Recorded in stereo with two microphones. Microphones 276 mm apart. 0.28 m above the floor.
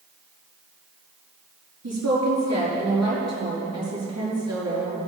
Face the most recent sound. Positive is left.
turn(degrees=-70)  # may be behind; listen again after turning